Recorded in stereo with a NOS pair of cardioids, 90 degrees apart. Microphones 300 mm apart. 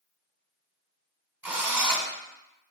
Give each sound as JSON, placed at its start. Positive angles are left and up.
{"t": 1.4, "sound": "a drill", "azimuth_deg": -5, "distance_m": 2.0}